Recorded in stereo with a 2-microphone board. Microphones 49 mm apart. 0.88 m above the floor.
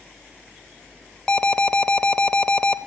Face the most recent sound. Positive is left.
turn(degrees=15)  # may be behind; listen again after turning